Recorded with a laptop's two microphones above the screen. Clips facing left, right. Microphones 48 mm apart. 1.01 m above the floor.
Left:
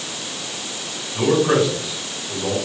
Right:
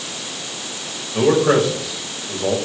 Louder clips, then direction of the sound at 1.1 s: Right 2 dB; 50° right (ahead or behind).